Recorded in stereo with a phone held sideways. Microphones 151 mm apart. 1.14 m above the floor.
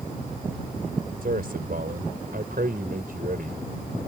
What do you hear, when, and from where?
1.2 s a man speaking: 70° right (ahead or behind)